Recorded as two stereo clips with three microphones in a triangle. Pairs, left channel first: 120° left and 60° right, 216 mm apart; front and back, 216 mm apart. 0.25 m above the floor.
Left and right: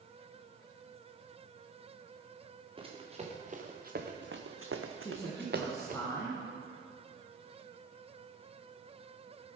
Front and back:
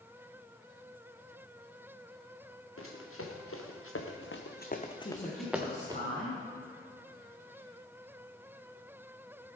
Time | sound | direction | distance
2.8 | running footsteps | 5° left | 3 m
5.0 | a woman speaking | 45° left | 2.5 m